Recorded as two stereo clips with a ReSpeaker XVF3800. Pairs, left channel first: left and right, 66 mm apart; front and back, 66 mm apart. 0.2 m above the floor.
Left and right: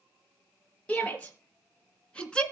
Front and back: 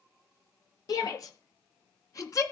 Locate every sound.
0.9 s a shout: 20° left, 4 m; by 2.4 s 15° left, 2.5 m